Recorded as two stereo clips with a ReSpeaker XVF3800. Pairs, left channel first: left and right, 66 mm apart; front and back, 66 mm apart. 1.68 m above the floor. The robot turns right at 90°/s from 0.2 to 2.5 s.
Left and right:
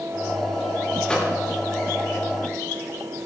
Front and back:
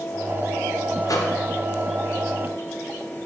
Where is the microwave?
10° left, 0.7 m; by 1.4 s 35° left, 0.7 m.